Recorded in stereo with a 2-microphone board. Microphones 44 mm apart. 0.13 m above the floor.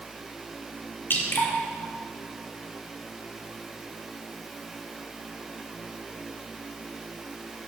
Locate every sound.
1.1 s dripping: 65° left (ahead or behind), 4 m